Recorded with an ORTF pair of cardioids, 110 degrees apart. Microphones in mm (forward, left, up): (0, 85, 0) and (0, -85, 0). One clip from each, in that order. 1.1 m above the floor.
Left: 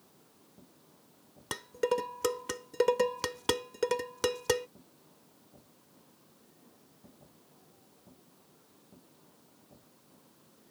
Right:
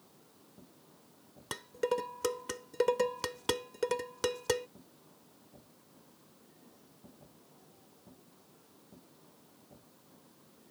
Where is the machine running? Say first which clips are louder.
Right 1 dB; 5° right.